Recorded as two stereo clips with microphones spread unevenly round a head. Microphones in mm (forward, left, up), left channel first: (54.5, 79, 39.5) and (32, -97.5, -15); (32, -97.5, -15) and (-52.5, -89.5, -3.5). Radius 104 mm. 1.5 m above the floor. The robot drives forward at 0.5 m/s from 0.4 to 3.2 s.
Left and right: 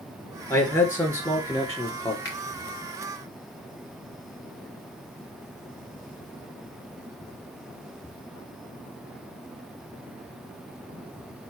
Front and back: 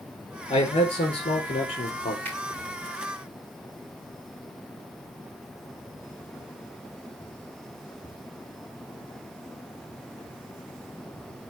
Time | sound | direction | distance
0.5 | a man speaking | 10° left | 4 m
2.2 | a finger snap | 125° left | 3 m